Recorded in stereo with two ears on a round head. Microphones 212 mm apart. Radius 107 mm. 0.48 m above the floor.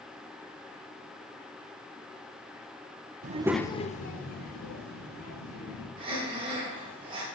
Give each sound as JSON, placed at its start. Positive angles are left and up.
{"t": 3.2, "sound": "a child speaking", "side_deg": -30, "distance_m": 0.6}
{"t": 6.0, "sound": "breathing", "side_deg": -20, "distance_m": 2.5}